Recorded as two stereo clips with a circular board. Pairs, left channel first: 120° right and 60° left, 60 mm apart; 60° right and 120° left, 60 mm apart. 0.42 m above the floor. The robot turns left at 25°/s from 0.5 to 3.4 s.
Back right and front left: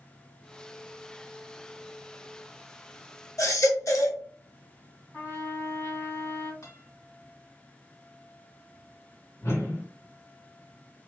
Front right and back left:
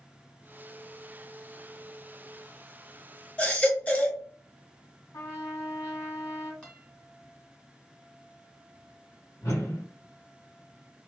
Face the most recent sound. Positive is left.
turn(degrees=-100)